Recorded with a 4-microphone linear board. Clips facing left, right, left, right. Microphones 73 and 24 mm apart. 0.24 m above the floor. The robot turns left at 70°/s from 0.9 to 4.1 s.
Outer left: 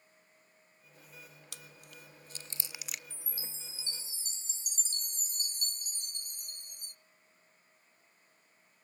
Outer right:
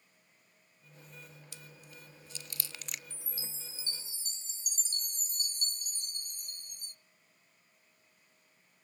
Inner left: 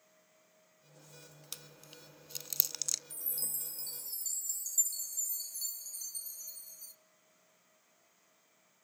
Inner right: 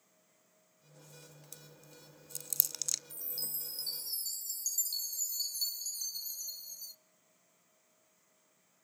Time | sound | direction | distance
1.5 | chewing | 70° left (ahead or behind) | 0.6 m
3.1 | a chime | 15° right | 0.5 m